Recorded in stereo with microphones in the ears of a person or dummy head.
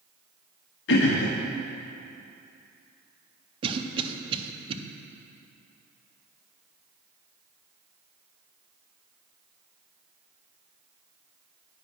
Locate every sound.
0.9 s throat clearing: 70° left (ahead or behind), 1.1 m
3.6 s a cough: 30° right (ahead or behind), 0.7 m